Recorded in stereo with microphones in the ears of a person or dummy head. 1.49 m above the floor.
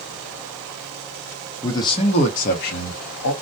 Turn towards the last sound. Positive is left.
turn(degrees=80)